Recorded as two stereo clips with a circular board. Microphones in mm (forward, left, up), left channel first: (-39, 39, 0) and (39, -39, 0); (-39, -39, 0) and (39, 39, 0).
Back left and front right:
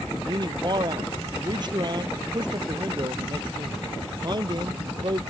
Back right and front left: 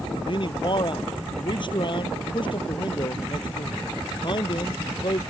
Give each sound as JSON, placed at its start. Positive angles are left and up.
{"t": 0.2, "sound": "a man speaking", "azimuth_deg": -90}